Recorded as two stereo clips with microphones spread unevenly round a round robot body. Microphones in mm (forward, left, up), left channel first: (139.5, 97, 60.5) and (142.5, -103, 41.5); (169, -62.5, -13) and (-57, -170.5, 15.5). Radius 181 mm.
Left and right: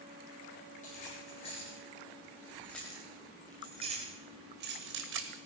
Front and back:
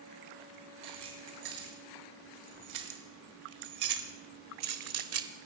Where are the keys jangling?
160° left, 3 m; by 5.3 s 115° right, 1.7 m.